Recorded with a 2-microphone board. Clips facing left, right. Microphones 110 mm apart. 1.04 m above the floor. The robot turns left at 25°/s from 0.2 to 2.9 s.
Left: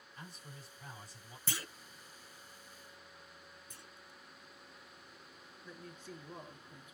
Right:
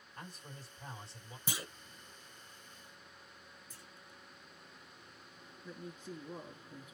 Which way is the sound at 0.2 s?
50° right (ahead or behind).